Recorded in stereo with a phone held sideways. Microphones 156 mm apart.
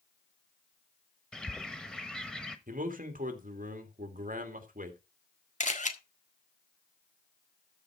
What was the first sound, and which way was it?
A bird, 5° left (ahead or behind).